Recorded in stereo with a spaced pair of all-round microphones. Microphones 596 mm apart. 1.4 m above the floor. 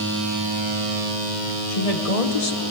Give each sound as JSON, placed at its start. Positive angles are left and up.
{"t": 1.7, "sound": "a woman speaking", "side_deg": 75, "distance_m": 1.6}